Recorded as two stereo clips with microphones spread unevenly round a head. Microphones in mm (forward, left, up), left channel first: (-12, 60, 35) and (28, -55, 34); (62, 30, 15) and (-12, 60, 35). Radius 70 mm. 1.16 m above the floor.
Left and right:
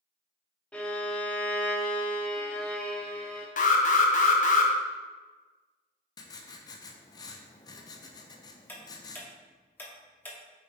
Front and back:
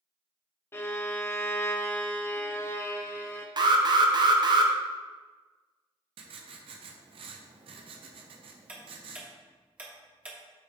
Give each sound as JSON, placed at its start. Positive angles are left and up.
{"t": 0.7, "sound": "a violin", "azimuth_deg": 40, "distance_m": 0.7}
{"t": 3.6, "sound": "an alarm", "azimuth_deg": 125, "distance_m": 0.9}
{"t": 6.2, "sound": "writing", "azimuth_deg": 165, "distance_m": 0.7}
{"t": 8.7, "sound": "ticking", "azimuth_deg": 170, "distance_m": 0.7}